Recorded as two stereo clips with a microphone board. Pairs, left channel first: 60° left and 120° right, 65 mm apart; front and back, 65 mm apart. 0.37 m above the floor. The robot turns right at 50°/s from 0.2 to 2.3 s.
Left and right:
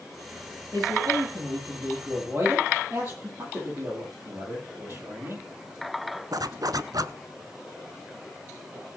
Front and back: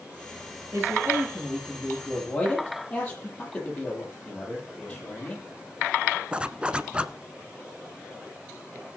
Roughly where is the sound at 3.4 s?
Right.